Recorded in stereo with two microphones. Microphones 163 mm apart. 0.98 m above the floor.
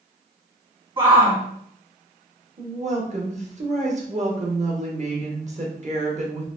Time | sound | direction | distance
1.0 | a shout | 30° right (ahead or behind) | 1.7 m
2.6 | a woman speaking | 45° right (ahead or behind) | 1.1 m